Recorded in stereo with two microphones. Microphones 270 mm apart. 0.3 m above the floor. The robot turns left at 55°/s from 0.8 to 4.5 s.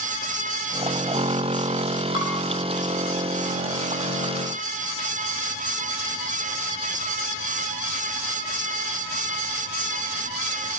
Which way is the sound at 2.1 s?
60° left (ahead or behind).